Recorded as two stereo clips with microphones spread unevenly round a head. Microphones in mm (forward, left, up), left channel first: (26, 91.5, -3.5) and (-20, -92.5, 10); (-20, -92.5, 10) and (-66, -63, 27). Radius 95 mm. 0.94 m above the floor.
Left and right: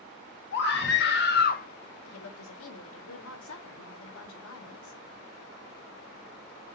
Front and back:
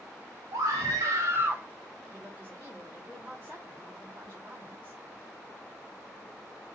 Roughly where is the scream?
Left.